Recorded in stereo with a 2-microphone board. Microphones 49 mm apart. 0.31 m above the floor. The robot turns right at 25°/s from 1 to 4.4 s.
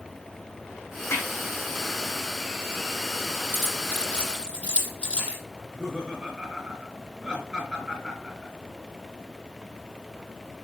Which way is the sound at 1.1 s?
85° left.